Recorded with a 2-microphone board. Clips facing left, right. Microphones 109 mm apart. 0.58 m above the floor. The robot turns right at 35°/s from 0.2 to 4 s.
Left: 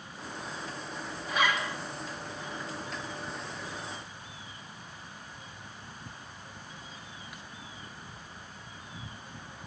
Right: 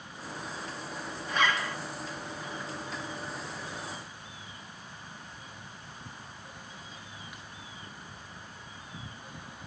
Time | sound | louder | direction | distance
1.3 | a zipper | even | 5° left (ahead or behind) | 2 m